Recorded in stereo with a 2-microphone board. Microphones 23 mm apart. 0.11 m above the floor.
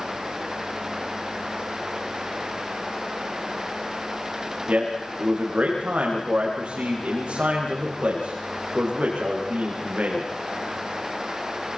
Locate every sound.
4.7 s a man speaking: 80° right, 7 m